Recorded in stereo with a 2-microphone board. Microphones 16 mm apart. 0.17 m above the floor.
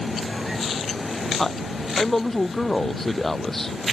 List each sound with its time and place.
1.4 s a man speaking: 20° left (ahead or behind)